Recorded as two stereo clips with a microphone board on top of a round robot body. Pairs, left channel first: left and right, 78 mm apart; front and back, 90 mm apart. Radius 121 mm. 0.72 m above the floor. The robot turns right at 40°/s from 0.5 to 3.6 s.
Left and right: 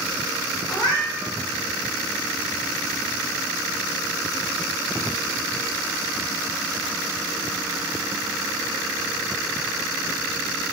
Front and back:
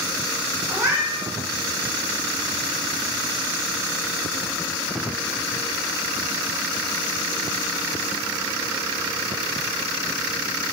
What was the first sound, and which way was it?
A cat meowing, 110° left.